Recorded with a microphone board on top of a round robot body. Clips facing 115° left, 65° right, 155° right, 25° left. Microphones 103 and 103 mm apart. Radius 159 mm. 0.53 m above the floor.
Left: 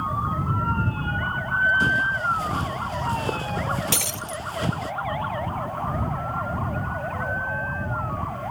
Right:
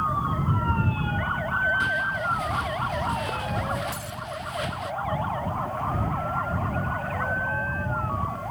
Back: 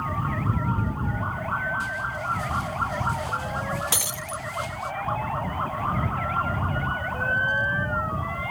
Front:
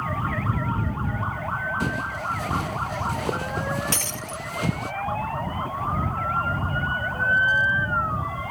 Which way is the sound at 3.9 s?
120° left.